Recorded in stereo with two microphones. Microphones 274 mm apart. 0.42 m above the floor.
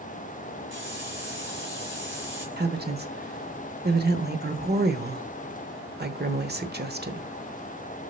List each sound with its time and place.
0.7 s a hiss: 45° right (ahead or behind), 2.5 m
2.6 s a woman speaking: 35° right (ahead or behind), 1.0 m